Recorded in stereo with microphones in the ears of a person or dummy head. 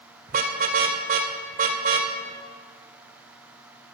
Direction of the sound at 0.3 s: 40° right (ahead or behind).